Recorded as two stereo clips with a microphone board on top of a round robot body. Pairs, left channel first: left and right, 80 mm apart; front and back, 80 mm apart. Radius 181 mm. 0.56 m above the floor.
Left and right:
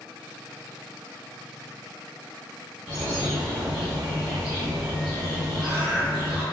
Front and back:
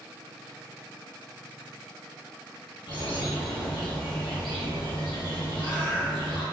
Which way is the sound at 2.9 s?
5° right.